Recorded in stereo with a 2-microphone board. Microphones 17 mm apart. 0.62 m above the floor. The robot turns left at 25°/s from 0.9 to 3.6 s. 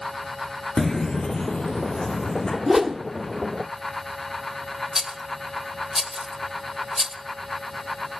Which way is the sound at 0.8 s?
25° left (ahead or behind).